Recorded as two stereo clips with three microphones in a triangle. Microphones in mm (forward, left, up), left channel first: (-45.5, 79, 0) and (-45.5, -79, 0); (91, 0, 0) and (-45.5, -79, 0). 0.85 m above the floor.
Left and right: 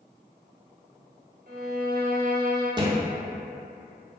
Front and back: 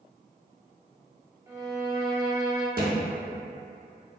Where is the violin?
80° right, 0.6 m.